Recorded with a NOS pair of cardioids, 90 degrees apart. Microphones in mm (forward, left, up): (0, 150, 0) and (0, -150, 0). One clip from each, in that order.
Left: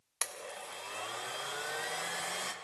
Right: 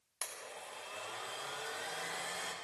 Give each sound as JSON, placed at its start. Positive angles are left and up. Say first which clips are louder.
{"t": 0.2, "sound": "a blender", "louder": "left 5 dB", "azimuth_deg": 40, "distance_m": 1.3}